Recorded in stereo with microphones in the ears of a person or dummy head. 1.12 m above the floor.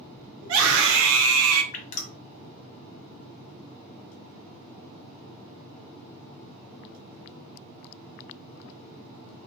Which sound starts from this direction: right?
A scream, at 0.4 s.